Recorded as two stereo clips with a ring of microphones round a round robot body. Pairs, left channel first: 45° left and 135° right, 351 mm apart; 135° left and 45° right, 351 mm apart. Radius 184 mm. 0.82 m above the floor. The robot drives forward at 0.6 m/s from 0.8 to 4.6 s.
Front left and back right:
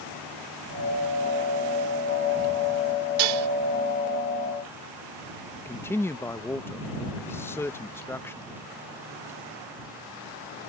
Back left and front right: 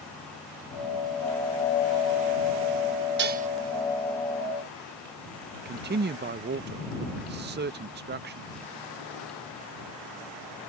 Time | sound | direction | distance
3.2 | dishes clattering | 105° right | ?
5.7 | a man speaking | 30° right | ?